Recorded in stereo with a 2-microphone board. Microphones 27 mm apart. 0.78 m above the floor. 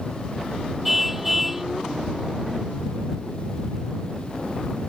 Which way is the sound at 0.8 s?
5° right (ahead or behind).